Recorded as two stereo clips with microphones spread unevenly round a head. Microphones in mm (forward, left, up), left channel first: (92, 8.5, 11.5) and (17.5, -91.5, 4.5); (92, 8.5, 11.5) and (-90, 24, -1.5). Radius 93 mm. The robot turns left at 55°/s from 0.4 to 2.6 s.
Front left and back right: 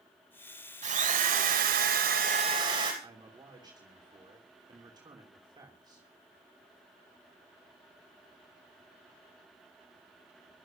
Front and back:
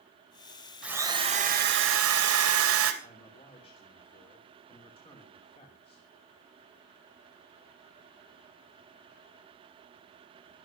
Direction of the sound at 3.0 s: 70° right.